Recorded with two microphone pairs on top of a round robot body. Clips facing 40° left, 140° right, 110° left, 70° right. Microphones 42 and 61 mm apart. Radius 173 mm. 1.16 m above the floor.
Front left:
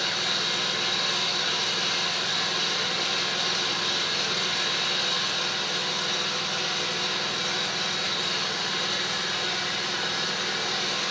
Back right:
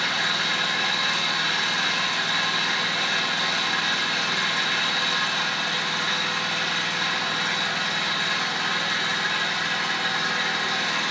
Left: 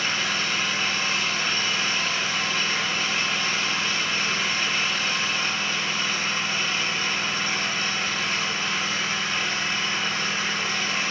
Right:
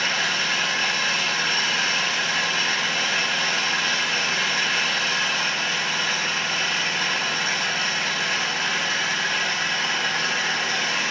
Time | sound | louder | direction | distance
0.0 | an engine running | back right 4 dB, right 2 dB | 100° right | 3.5 m